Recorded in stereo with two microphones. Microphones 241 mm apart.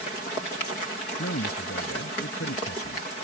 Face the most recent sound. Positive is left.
turn(degrees=75)  # may be behind; listen again after turning